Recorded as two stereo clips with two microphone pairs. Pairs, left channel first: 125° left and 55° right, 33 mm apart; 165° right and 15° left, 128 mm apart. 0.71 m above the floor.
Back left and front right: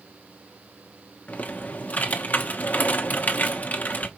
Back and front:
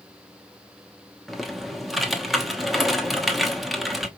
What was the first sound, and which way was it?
Typing on a keyboard, 100° left.